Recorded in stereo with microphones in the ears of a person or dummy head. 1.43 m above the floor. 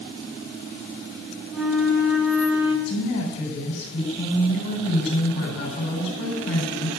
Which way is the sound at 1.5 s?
5° right (ahead or behind).